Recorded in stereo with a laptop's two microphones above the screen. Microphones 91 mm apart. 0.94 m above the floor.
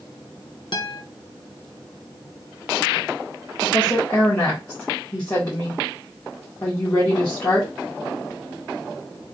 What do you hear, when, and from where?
0.7 s a guitar: 60° left (ahead or behind), 0.8 m
3.6 s a woman speaking: 40° left (ahead or behind), 2 m